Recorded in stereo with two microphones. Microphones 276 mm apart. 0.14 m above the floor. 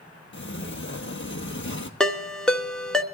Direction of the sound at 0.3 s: 45° left (ahead or behind).